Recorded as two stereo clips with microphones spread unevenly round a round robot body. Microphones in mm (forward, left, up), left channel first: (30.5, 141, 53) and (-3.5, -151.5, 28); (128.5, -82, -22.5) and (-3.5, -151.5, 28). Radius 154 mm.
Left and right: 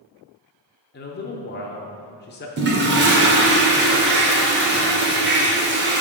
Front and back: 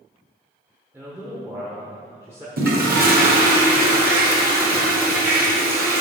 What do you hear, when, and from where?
0.9 s a man speaking: 110° left, 0.8 m
2.6 s a toilet flushing: 135° right, 1.7 m